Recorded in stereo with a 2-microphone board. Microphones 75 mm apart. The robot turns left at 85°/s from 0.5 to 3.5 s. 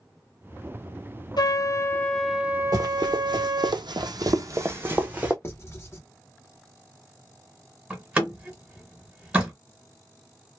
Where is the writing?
35° left (ahead or behind), 1.0 m.